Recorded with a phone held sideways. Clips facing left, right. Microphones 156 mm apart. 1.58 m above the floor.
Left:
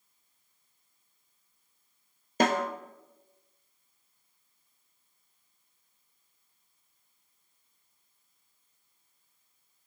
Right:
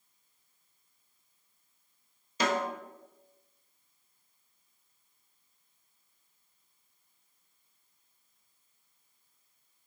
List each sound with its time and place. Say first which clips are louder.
2.4 s a snare drum: left 4 dB; 50° left (ahead or behind), 0.9 m